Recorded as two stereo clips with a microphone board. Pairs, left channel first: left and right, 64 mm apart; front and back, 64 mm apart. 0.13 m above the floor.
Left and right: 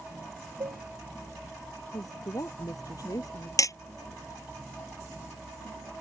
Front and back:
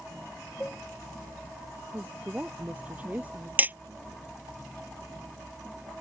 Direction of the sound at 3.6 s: 115° left.